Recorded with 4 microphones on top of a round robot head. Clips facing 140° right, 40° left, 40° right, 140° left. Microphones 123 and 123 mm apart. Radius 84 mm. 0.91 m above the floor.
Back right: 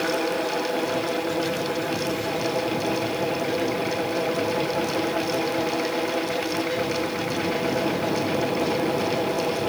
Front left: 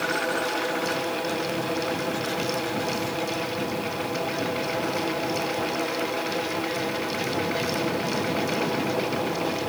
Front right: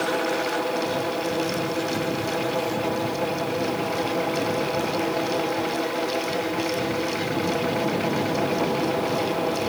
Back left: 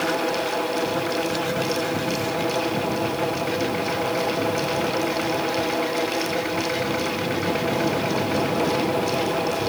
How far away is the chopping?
I don't hear chopping.